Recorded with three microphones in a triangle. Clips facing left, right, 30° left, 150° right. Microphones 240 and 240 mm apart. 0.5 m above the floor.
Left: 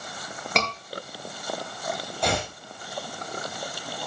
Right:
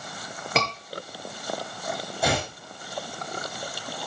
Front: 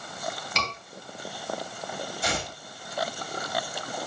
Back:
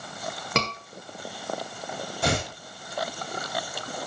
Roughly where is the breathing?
No breathing in this recording.